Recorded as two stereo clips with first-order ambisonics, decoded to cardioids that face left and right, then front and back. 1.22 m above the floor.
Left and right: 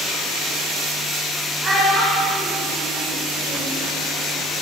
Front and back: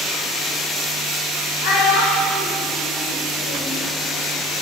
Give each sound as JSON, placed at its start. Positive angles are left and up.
{"t": 1.6, "sound": "a child speaking", "azimuth_deg": -15, "distance_m": 2.5}